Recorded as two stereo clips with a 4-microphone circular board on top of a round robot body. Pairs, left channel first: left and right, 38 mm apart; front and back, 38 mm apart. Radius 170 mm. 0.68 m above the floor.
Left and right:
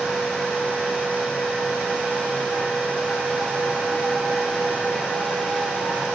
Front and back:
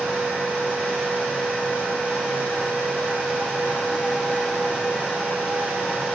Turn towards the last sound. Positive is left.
No sound to turn to.